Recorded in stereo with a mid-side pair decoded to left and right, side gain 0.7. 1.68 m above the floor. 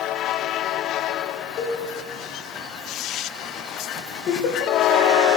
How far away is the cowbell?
About 6.5 m.